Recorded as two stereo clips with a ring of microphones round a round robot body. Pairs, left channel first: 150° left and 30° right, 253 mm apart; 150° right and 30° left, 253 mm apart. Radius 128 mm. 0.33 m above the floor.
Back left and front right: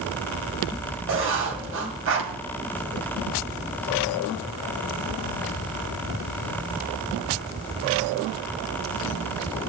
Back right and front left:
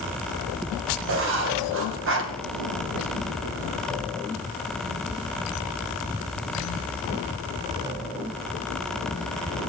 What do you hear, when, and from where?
1.1 s writing: straight ahead, 2.5 m